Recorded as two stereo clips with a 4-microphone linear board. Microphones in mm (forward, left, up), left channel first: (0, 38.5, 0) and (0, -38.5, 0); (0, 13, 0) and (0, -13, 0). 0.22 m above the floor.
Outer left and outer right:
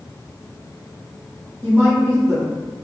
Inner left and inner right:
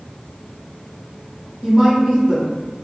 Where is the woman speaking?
25° right (ahead or behind), 1.7 m.